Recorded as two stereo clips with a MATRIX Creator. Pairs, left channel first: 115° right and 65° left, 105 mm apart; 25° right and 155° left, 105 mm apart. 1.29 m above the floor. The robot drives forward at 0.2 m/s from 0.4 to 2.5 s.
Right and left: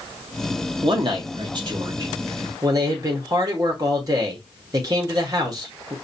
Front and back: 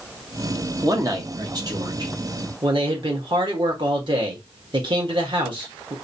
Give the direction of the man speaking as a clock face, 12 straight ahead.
9 o'clock.